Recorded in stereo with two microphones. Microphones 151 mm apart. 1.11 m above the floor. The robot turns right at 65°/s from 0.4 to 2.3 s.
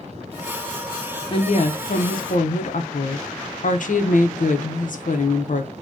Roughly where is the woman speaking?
Ahead left.